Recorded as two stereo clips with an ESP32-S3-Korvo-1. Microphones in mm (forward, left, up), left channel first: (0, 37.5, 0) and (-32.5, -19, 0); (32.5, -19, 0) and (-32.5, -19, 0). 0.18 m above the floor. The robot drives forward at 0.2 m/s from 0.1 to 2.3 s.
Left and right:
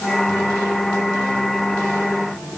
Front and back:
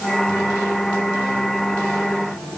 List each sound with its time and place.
Only background noise.